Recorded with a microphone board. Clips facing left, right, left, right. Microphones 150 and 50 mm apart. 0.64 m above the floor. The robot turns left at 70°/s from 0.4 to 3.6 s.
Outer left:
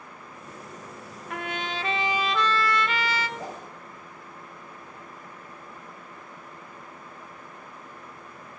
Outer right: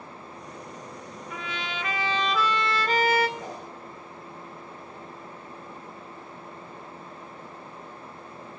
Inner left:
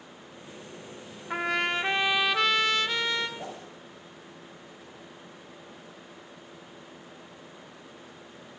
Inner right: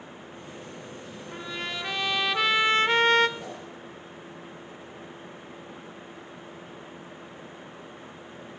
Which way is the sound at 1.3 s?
70° left.